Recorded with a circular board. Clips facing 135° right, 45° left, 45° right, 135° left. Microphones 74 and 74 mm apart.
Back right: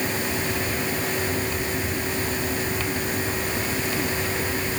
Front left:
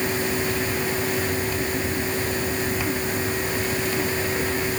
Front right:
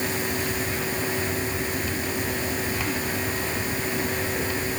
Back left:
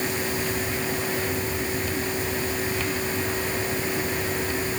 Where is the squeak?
No squeak in this recording.